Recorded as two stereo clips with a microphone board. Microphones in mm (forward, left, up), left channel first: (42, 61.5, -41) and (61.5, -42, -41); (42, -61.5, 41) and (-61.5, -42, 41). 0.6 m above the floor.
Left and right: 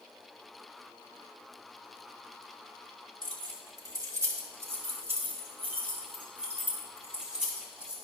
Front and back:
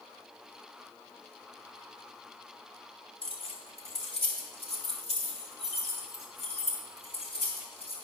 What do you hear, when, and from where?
3.2 s keys jangling: 40° right, 1.4 m; by 7.9 s 5° left, 3.5 m